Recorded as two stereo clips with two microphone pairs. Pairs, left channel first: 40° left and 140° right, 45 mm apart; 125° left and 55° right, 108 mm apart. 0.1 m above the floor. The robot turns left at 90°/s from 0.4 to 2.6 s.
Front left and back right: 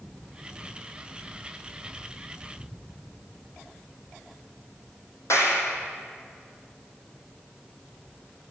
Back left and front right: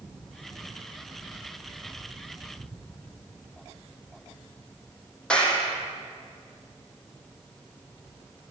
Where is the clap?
45° left, 3.5 m.